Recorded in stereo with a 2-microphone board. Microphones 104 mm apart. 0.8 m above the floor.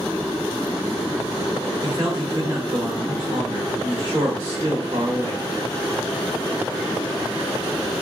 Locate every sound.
1.8 s a man speaking: 35° right (ahead or behind), 1.3 m